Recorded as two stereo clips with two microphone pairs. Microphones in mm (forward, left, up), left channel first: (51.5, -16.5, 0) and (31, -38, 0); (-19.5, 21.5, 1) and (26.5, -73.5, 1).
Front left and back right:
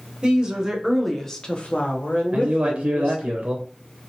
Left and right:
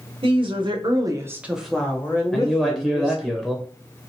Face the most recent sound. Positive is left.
turn(degrees=-155)